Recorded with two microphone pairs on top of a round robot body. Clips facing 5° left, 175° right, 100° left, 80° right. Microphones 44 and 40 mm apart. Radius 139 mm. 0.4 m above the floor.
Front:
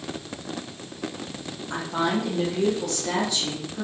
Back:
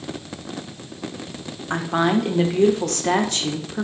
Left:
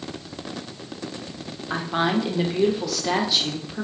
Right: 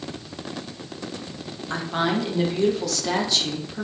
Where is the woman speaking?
Straight behind, 1.5 m.